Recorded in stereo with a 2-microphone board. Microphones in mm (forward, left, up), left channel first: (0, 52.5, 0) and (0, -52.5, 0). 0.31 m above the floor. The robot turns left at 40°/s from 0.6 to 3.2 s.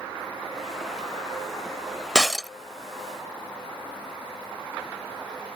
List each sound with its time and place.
2.1 s breaking glass: 5° left (ahead or behind); by 2.5 s 5° right (ahead or behind)